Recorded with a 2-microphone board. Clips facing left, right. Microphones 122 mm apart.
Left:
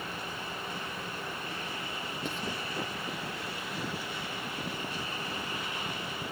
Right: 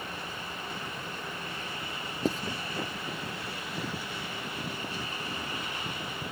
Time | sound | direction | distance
2.2 | writing | 35° right (ahead or behind) | ?